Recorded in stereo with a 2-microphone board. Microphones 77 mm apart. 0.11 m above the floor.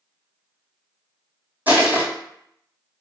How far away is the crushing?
About 1.2 m.